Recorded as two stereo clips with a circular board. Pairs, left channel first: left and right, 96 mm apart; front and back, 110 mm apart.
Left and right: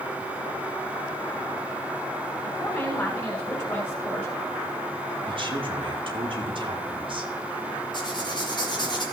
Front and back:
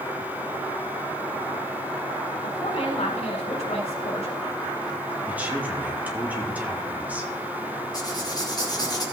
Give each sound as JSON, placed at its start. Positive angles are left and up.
{"t": 2.4, "sound": "a woman speaking", "azimuth_deg": 20, "distance_m": 4.5}
{"t": 5.3, "sound": "a woman speaking", "azimuth_deg": -105, "distance_m": 2.0}
{"t": 7.9, "sound": "writing", "azimuth_deg": 50, "distance_m": 3.0}